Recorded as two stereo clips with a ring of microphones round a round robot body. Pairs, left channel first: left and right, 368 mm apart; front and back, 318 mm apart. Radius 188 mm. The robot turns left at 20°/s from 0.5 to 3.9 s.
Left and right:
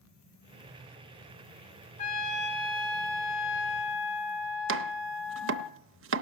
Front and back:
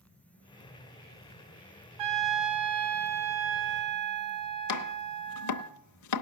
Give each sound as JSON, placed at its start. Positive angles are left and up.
{"t": 2.0, "sound": "a trumpet", "azimuth_deg": 160, "distance_m": 1.0}
{"t": 4.7, "sound": "chopping", "azimuth_deg": -35, "distance_m": 0.6}